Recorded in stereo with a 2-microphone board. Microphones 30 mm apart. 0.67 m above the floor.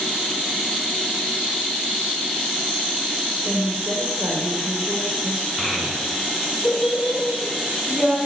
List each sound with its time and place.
3.5 s a woman speaking: 65° right (ahead or behind), 3 m
5.6 s a child speaking: 5° right (ahead or behind), 4.5 m